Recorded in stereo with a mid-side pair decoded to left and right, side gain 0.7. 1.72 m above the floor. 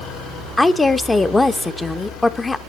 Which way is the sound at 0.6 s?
10° left.